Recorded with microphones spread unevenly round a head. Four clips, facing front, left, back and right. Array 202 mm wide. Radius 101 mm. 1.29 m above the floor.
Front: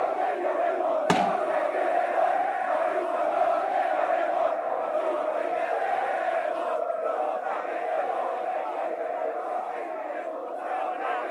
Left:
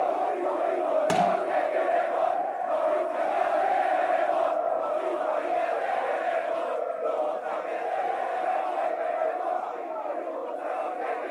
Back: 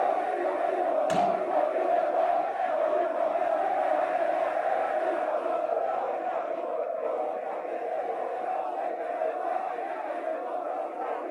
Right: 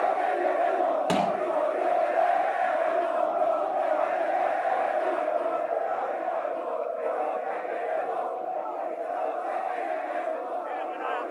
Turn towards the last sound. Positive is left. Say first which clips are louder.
# left 2 dB, front 4 dB
turn(degrees=-5)